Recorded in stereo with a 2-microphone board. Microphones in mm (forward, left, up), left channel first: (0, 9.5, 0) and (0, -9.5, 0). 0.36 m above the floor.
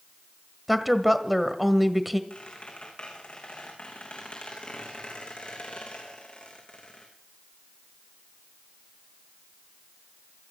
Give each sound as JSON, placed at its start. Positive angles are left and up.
{"t": 0.7, "sound": "a woman speaking", "side_deg": -5, "distance_m": 1.7}
{"t": 2.3, "sound": "a squeak", "side_deg": 65, "distance_m": 5.5}